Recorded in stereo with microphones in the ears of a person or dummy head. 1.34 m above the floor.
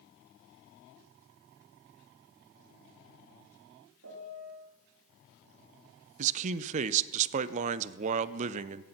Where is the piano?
90° right, 2.5 m.